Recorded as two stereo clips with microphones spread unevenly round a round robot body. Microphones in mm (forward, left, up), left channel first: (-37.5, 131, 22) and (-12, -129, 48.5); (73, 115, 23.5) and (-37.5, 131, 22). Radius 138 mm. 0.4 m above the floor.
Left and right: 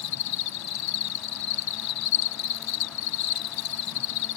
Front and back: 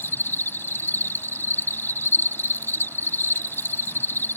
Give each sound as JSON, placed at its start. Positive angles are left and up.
{"t": 0.0, "sound": "an insect", "azimuth_deg": 65}